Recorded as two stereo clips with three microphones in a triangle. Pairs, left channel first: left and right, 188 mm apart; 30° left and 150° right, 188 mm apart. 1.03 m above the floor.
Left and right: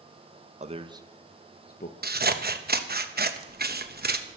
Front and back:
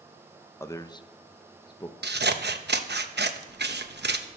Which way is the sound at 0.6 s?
45° right.